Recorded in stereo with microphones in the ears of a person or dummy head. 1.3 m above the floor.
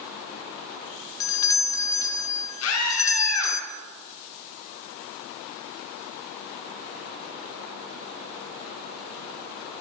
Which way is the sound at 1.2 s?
20° left (ahead or behind).